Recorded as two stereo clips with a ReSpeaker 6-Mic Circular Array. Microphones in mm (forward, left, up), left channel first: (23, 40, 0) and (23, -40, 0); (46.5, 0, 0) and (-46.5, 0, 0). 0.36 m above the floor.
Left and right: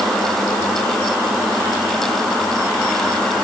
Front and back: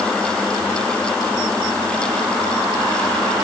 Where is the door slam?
I don't hear a door slam.